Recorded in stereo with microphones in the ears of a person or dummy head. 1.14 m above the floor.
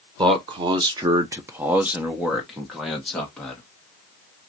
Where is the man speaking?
20° right (ahead or behind), 0.7 m; by 3.6 s 10° left (ahead or behind), 1.5 m.